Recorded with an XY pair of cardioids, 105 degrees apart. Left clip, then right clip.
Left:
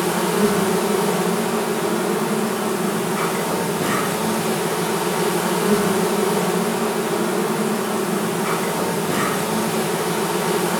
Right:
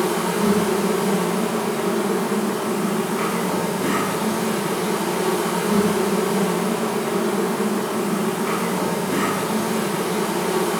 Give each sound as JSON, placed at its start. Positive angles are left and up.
{"t": 0.0, "sound": "an insect", "azimuth_deg": 50, "distance_m": 0.8}